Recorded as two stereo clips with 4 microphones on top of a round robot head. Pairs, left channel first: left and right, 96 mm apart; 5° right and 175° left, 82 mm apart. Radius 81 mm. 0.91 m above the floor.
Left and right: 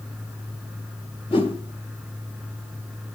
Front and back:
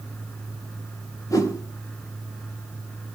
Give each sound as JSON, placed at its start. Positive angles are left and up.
{"t": 1.3, "sound": "a whoosh", "azimuth_deg": 45, "distance_m": 2.0}